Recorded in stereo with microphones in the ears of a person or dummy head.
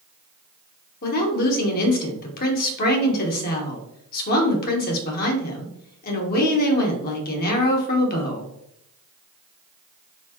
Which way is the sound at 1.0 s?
55° left (ahead or behind).